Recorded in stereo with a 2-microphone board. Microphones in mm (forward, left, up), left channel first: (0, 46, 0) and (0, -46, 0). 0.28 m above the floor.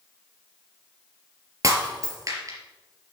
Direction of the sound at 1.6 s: 35° right (ahead or behind).